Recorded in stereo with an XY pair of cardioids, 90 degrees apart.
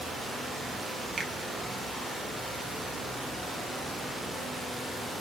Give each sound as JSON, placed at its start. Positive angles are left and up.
{"t": 1.2, "sound": "a finger snap", "azimuth_deg": -45, "distance_m": 1.4}